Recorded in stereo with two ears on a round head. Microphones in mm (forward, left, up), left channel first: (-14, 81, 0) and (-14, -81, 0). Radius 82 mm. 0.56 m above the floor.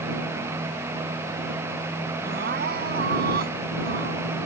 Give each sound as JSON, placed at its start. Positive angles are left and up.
{"t": 2.2, "sound": "crying", "side_deg": -55}